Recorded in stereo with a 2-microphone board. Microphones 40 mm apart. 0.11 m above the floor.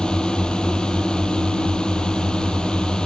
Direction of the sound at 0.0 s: 20° left (ahead or behind).